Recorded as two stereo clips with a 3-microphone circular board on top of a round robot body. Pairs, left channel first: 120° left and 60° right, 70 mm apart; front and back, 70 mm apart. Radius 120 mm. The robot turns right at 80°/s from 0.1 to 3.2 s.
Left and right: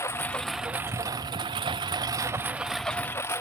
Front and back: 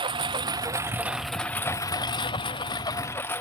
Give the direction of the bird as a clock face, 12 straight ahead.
I don't hear a bird.